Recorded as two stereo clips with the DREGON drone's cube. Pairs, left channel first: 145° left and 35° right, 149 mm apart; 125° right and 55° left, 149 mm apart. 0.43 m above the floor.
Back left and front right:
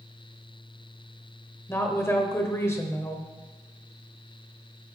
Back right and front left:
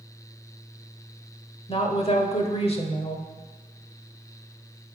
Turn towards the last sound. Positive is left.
turn(degrees=-150)